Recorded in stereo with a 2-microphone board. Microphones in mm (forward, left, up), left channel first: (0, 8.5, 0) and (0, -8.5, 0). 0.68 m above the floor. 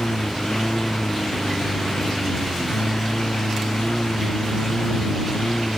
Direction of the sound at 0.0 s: 85° left.